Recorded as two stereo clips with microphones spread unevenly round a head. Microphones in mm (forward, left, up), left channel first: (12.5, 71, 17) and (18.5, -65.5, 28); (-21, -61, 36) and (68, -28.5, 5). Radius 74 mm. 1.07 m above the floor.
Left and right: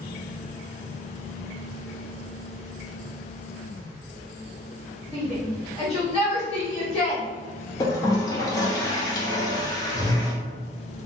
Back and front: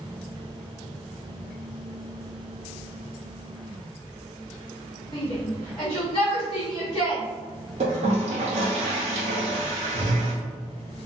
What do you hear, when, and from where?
5.1 s a shout: 135° left, 1.5 m
7.8 s a toilet flushing: 30° left, 0.6 m